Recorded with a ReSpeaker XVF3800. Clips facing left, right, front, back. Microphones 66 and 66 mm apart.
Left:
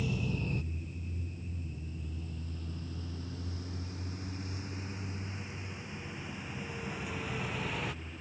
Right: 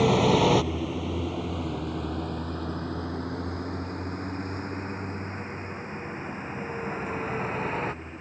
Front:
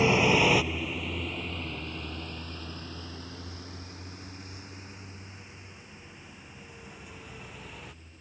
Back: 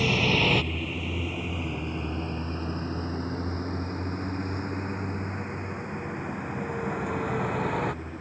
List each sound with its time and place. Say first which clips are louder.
0.0 s a vehicle: right 16 dB, front 2 dB; 70° right; by 8.2 s 150° right